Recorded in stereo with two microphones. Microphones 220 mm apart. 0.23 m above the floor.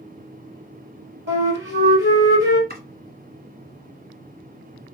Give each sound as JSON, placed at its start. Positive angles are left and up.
{"t": 1.3, "sound": "a flute", "side_deg": -65, "distance_m": 1.5}
{"t": 2.7, "sound": "chopping", "side_deg": -50, "distance_m": 1.6}